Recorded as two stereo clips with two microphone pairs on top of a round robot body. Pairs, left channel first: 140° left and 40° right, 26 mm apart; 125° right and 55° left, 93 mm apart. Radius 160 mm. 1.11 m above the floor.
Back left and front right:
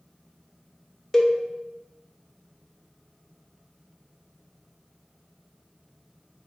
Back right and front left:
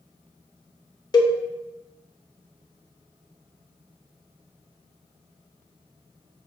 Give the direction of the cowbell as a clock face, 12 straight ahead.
5 o'clock.